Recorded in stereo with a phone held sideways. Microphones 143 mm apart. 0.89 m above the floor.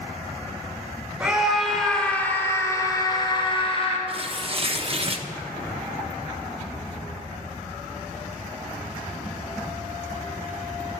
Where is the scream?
5° right (ahead or behind), 2.5 m; by 4.0 s 45° left (ahead or behind), 3 m.